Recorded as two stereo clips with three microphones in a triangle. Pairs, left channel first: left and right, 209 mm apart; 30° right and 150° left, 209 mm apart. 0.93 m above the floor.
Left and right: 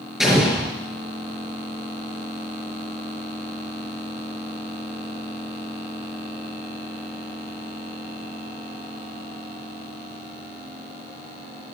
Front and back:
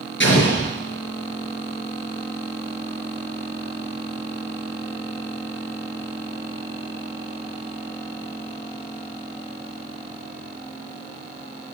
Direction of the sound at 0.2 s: Straight ahead.